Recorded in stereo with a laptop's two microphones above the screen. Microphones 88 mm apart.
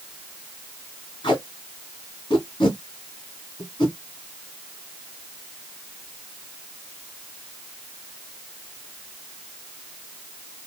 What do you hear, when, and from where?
1.2 s tape being pulled: 55° left (ahead or behind), 2 m